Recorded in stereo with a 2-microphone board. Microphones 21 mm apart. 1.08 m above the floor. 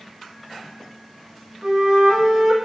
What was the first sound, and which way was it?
A flute, 60° right (ahead or behind).